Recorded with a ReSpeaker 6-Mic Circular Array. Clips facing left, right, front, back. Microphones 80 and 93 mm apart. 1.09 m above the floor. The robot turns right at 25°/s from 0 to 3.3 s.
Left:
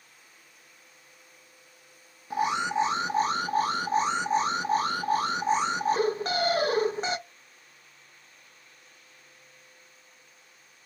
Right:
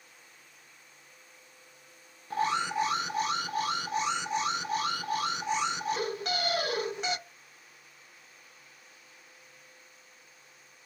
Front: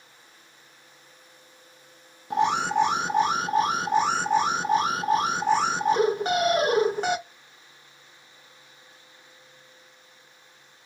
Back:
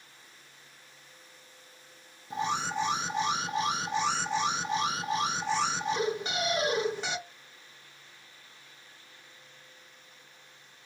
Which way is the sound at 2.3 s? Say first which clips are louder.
Left 2 dB, front 8 dB; 15° left.